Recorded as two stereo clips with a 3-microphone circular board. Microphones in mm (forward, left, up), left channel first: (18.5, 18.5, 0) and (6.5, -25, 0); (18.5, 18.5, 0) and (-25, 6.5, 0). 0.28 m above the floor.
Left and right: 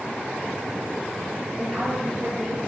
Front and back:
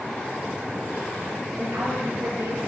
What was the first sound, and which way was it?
A woman speaking, 175° right.